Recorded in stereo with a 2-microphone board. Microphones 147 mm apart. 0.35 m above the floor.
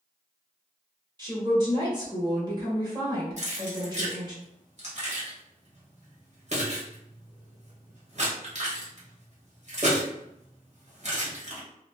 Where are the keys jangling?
50° right (ahead or behind), 1.0 m.